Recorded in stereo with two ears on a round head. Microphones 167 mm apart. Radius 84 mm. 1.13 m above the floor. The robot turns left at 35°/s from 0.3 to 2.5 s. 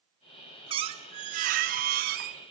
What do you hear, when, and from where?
0.7 s a squeak: 35° right, 0.8 m; by 2.4 s 95° right, 0.8 m